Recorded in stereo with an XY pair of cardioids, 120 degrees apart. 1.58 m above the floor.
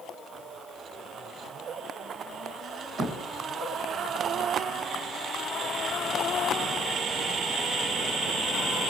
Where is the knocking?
50° right, 1.4 m.